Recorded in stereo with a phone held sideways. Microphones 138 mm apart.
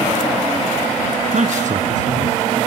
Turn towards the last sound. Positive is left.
turn(degrees=-65)  # may be behind; listen again after turning